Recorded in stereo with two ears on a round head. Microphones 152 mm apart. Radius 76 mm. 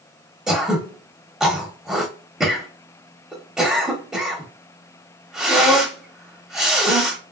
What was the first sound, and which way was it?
Throat clearing, 5° right (ahead or behind).